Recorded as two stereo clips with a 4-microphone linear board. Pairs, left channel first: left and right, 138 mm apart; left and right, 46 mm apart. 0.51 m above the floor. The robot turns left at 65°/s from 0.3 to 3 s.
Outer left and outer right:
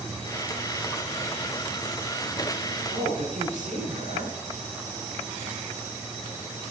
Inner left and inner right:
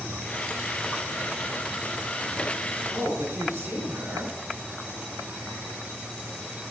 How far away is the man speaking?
About 6 m.